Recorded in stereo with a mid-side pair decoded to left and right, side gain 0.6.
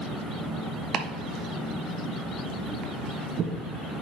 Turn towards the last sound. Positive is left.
turn(degrees=-45)